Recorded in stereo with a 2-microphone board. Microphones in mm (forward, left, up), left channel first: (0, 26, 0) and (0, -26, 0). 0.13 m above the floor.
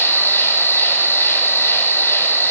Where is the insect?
55° left (ahead or behind), 1.1 m.